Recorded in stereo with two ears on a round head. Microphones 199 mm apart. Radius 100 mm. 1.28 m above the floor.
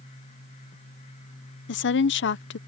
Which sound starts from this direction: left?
A woman speaking, at 1.7 s.